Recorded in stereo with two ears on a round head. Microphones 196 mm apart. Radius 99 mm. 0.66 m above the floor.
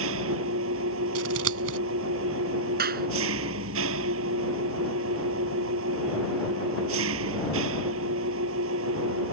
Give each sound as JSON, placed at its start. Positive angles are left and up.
{"t": 0.0, "sound": "an engine running", "side_deg": -65}
{"t": 1.1, "sound": "scissors", "side_deg": -65}
{"t": 2.8, "sound": "a clap", "side_deg": -45}